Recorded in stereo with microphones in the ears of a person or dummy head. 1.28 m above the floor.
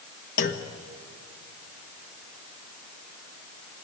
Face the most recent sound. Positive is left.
turn(degrees=45)  # may be behind; listen again after turning